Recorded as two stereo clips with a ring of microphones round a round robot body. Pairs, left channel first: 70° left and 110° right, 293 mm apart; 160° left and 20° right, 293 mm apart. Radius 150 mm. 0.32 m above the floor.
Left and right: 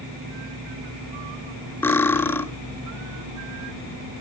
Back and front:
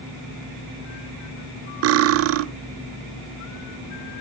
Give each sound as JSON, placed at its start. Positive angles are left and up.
{"t": 1.8, "sound": "cutlery clinking", "azimuth_deg": -15, "distance_m": 0.5}